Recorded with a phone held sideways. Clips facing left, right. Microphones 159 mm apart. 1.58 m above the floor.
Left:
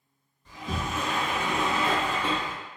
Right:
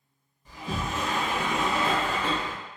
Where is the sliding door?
10° right (ahead or behind), 1.7 m.